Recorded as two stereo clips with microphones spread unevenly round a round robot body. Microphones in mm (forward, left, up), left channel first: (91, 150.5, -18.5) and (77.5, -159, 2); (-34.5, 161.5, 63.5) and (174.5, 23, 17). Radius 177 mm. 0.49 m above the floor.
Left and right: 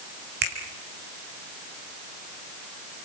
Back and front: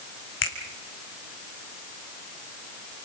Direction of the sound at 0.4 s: 160° right.